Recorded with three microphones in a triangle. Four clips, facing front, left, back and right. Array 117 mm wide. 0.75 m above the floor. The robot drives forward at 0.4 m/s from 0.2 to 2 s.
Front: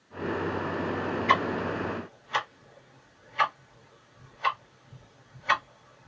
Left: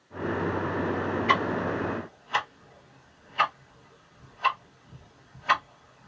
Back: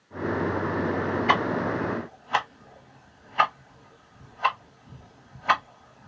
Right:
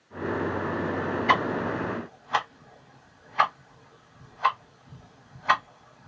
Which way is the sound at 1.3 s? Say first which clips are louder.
Right 2 dB, even; 155° right.